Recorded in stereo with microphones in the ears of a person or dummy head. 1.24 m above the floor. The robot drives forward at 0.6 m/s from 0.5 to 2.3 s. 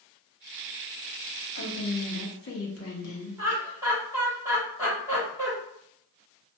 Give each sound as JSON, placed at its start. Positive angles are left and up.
{"t": 1.6, "sound": "a woman speaking", "side_deg": 70, "distance_m": 0.9}
{"t": 3.4, "sound": "laughter", "side_deg": -15, "distance_m": 1.1}